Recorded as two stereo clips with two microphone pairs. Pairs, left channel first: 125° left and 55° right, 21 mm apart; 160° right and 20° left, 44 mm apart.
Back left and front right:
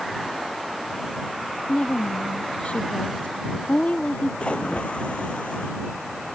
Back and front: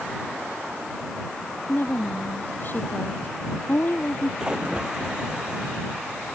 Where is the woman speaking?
150° left; by 4.3 s 155° left.